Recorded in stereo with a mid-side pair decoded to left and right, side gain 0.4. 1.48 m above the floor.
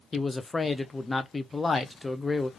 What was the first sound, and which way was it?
A man speaking, 20° left.